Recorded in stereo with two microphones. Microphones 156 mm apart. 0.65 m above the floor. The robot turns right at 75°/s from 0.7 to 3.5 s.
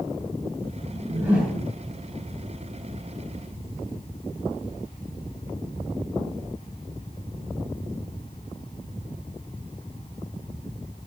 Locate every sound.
0.9 s a whoosh: 35° right, 8.5 m; by 1.7 s 20° left, 8.5 m